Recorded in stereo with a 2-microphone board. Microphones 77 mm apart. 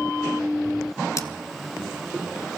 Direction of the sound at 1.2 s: 40° left (ahead or behind).